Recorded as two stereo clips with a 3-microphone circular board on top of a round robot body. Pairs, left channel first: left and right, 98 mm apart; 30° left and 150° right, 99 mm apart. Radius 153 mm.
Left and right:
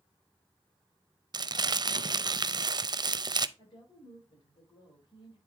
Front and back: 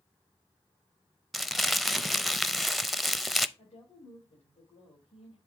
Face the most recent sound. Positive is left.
turn(degrees=50)